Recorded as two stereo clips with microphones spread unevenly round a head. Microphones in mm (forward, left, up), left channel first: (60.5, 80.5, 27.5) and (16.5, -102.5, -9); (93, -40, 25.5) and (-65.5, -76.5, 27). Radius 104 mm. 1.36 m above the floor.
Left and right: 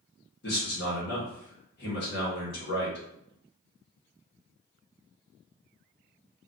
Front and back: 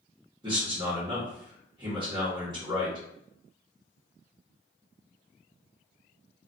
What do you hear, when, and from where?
0.4 s a man speaking: 120° left, 1.4 m